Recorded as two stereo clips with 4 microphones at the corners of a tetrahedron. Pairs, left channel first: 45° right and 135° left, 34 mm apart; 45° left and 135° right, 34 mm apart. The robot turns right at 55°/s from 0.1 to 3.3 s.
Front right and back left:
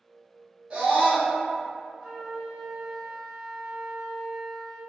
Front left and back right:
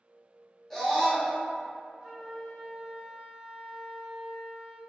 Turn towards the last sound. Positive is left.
turn(degrees=-115)